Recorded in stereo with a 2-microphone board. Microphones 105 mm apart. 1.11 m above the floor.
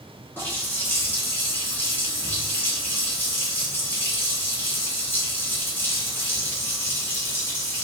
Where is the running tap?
20° left (ahead or behind), 1.2 m.